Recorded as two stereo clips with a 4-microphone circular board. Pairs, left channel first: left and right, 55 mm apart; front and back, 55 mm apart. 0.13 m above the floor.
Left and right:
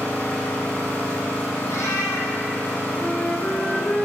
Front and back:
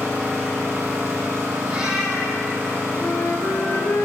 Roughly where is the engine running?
Behind left.